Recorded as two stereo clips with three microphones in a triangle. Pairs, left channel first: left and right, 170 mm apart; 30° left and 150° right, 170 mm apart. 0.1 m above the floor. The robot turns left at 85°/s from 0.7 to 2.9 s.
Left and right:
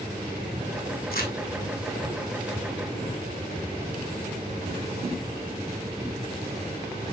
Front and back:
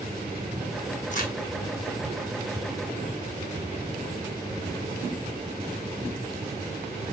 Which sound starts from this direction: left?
Crumpling, at 1.1 s.